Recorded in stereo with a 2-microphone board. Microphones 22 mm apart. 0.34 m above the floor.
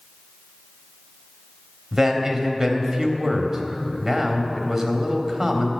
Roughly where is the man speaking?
Right.